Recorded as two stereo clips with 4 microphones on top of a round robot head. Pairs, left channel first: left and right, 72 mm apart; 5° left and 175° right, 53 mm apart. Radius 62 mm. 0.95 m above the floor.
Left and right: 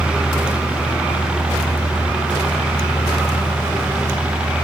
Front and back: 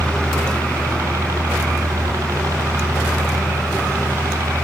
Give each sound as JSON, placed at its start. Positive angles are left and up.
{"t": 0.0, "sound": "a helicopter", "azimuth_deg": -170}